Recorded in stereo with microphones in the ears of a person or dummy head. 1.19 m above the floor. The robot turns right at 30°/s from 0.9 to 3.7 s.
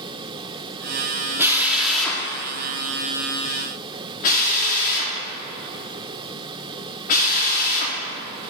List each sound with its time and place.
1.4 s a drill: 15° right (ahead or behind), 1.1 m; by 8.0 s 50° left (ahead or behind), 1.1 m